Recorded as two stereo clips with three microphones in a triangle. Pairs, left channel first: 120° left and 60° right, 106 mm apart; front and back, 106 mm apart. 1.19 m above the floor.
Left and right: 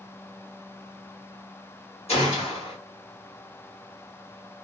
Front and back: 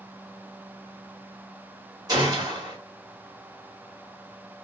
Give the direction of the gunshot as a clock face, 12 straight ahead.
8 o'clock.